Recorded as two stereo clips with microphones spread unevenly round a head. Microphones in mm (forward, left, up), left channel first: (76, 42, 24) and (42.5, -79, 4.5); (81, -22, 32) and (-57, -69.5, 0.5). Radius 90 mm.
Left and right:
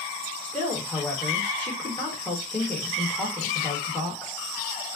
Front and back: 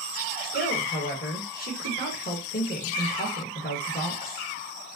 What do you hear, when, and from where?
0.4 s a woman speaking: 5° right, 2 m